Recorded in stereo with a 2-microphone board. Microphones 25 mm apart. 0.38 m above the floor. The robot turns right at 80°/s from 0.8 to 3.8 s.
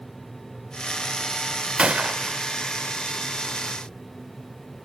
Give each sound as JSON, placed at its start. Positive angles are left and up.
{"t": 1.8, "sound": "a gunshot", "azimuth_deg": -120}